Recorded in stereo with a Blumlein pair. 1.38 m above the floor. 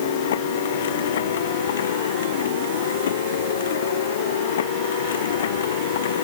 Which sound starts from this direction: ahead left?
A machine running, at 0.0 s.